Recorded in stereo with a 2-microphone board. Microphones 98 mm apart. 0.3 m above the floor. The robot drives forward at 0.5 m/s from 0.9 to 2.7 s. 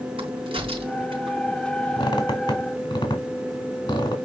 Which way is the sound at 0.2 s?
65° right (ahead or behind).